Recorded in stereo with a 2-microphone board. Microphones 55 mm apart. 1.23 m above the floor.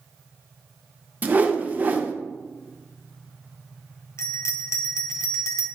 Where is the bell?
55° left (ahead or behind), 0.9 m.